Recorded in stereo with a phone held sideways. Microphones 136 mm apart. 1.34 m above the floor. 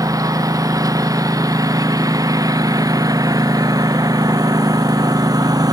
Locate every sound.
0.0 s a lawn mower: 25° right (ahead or behind); by 5.7 s 30° right (ahead or behind)